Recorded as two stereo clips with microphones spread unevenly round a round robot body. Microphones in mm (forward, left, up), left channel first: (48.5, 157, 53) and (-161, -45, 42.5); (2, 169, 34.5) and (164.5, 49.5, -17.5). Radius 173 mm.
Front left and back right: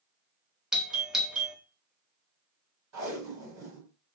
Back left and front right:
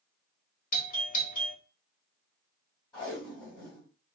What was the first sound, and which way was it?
A doorbell, 145° left.